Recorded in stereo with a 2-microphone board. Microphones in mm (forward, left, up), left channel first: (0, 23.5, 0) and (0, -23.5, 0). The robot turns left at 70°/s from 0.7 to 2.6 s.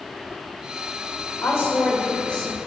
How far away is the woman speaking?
About 3 m.